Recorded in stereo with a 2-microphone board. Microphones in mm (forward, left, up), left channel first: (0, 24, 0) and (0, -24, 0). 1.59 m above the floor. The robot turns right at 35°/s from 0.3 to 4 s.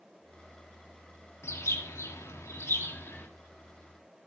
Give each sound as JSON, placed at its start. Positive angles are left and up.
{"t": 1.4, "sound": "a bird", "azimuth_deg": 70, "distance_m": 1.6}